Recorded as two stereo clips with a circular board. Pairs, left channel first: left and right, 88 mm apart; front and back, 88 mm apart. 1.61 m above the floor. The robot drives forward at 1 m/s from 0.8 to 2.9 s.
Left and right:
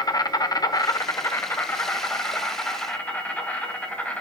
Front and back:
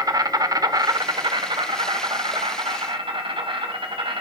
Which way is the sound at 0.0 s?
135° left.